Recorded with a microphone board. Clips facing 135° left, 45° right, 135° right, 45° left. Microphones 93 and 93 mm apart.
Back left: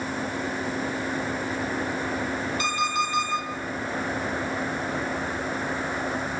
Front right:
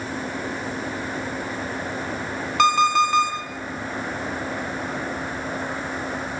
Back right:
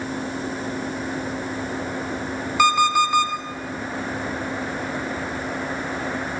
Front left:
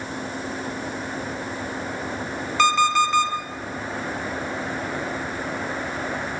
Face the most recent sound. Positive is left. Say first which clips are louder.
# front right 12 dB, back right 1 dB
turn(degrees=-55)